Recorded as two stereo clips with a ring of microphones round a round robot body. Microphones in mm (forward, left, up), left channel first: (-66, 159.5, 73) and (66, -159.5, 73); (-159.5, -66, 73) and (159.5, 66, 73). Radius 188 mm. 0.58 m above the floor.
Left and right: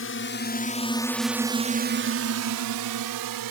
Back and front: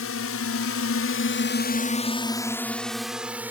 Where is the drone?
160° left; by 3.5 s 60° right.